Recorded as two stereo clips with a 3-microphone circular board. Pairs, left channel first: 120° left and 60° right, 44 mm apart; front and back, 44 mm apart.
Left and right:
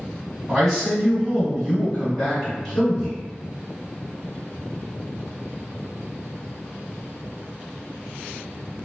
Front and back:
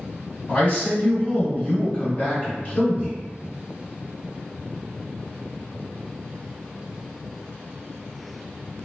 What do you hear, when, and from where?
0.5 s a man speaking: 30° left, 1.9 m